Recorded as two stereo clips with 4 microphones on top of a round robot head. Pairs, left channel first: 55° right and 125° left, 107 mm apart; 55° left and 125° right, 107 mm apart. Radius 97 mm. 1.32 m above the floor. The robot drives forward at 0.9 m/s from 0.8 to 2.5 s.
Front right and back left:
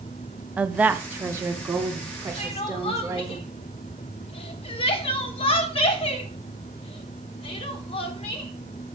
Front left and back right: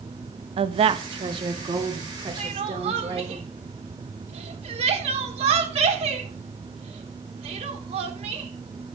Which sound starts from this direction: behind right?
A woman speaking, at 0.6 s.